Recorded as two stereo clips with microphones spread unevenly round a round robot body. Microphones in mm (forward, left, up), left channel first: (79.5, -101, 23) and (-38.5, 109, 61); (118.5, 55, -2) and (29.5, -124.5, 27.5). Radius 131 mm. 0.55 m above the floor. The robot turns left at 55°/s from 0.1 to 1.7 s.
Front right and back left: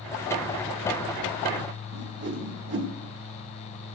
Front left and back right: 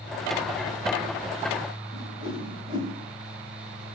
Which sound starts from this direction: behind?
A whoosh, at 1.9 s.